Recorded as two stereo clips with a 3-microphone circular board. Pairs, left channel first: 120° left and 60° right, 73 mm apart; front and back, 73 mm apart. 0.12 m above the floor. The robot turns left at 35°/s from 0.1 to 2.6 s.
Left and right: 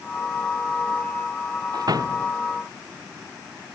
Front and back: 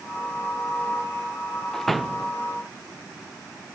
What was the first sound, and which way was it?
A door slam, 85° right.